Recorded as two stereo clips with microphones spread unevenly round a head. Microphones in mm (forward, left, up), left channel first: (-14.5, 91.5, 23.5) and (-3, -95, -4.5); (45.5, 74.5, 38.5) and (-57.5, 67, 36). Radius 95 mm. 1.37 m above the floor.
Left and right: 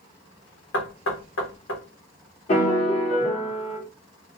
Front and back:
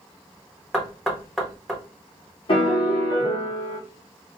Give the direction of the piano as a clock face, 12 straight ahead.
11 o'clock.